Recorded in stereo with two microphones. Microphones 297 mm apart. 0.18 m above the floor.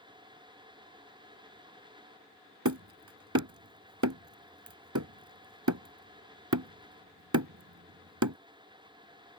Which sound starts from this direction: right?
Hammering, at 2.6 s.